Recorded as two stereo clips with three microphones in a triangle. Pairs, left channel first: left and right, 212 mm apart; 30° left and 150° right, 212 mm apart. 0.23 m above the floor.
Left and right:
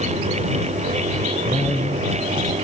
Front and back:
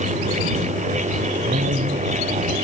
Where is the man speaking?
Straight behind; by 2.5 s 160° left.